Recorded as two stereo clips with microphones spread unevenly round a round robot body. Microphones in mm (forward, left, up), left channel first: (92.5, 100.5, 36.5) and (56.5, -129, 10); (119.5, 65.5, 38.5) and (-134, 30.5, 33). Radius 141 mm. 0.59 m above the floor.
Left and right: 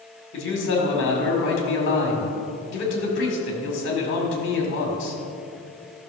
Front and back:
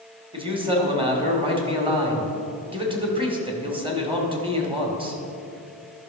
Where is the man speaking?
120° left, 2.5 m.